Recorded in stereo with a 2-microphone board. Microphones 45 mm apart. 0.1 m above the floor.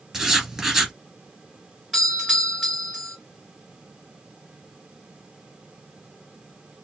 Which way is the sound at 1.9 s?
10° right (ahead or behind).